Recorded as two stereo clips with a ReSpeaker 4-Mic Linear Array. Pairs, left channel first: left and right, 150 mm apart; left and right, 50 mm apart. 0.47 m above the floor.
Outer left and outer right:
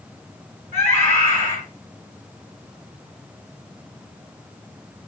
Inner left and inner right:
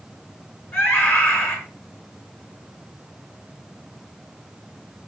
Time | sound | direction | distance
0.7 | a scream | 50° left (ahead or behind) | 6.5 m